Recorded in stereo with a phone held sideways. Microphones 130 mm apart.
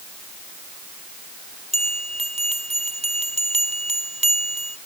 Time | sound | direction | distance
1.7 | a bell | 65° right (ahead or behind) | ?